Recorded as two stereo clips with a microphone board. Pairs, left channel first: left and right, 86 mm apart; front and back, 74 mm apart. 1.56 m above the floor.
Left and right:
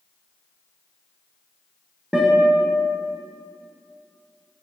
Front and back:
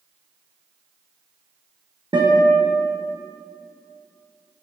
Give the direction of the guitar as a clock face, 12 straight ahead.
6 o'clock.